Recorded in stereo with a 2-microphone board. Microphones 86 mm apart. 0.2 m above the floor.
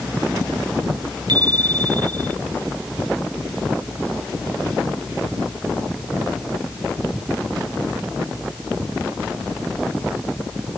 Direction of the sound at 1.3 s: 55° right (ahead or behind).